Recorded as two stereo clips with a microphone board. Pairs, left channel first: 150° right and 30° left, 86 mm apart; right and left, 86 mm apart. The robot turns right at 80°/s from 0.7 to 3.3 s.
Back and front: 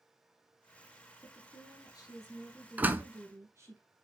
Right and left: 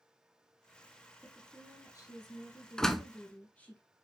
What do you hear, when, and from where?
1.2 s a woman speaking: 175° left, 2.5 m; by 3.8 s 20° right, 2.5 m
2.8 s a door slam: 15° right, 0.8 m; by 3.0 s 5° left, 0.8 m